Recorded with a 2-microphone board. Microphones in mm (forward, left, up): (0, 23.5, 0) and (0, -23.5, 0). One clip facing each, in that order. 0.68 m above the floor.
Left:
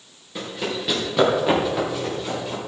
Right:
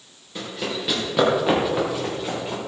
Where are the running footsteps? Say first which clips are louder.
Left 1 dB; 5° left (ahead or behind), 4 m; by 2.6 s 20° right (ahead or behind), 5 m.